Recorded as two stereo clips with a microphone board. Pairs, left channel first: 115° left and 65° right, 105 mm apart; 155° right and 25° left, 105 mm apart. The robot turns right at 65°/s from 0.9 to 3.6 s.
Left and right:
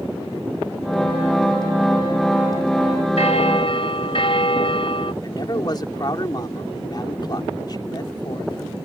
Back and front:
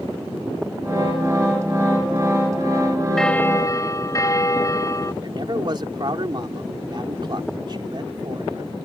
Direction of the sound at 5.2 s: 65° left.